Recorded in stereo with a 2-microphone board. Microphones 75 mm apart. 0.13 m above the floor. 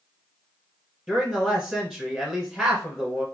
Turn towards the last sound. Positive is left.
turn(degrees=0)  # may be behind; listen again after turning